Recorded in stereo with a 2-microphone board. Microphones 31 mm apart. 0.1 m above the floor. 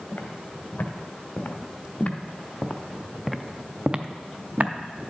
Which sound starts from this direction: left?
Footsteps, at 0.1 s.